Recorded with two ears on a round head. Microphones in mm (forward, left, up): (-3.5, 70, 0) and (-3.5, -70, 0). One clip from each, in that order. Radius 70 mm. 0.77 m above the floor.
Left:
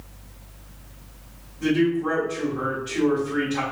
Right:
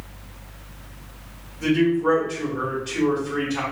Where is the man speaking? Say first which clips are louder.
Right 2 dB; 35° right (ahead or behind), 1.6 m.